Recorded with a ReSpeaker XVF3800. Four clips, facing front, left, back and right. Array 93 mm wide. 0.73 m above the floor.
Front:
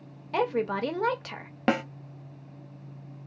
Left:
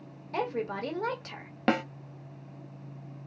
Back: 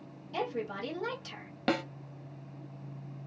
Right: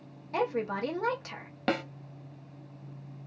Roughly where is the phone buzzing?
I don't hear a phone buzzing.